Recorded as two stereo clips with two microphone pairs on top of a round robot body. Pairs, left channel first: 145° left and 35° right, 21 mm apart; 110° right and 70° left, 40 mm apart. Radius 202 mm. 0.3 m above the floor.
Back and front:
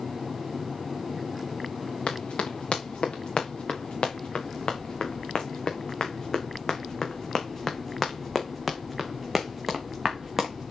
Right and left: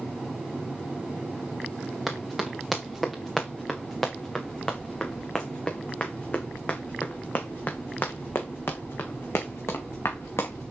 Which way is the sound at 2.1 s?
160° left.